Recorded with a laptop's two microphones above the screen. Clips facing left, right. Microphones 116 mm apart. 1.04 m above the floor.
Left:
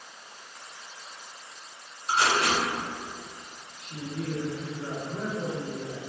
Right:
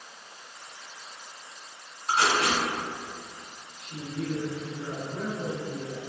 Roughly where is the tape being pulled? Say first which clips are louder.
Even; right.